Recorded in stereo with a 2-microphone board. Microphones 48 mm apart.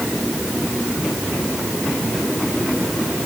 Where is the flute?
I don't hear a flute.